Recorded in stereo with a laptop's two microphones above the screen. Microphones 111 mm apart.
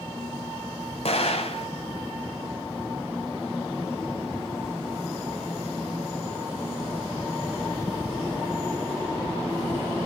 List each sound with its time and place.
1.1 s an explosion: 65° left (ahead or behind), 1.9 m